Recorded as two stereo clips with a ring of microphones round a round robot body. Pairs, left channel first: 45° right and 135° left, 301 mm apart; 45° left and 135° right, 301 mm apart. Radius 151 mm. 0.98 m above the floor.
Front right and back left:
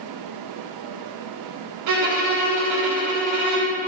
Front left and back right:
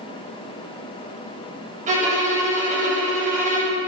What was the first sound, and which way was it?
A violin, 160° left.